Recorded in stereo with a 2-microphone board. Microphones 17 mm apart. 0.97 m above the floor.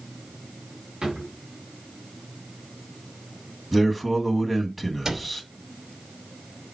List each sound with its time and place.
1.0 s a drawer: 70° right (ahead or behind), 3.5 m
3.7 s a man speaking: 25° right (ahead or behind), 1.9 m
5.0 s a cupboard door: 45° right (ahead or behind), 2 m